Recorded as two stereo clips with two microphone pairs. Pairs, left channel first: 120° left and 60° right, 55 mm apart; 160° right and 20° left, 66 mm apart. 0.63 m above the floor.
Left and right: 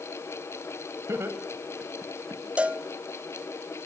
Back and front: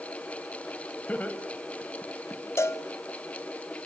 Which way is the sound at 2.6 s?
120° right.